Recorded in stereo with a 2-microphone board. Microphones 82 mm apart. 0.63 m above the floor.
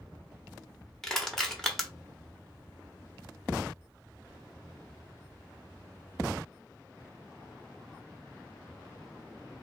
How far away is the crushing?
About 1.0 m.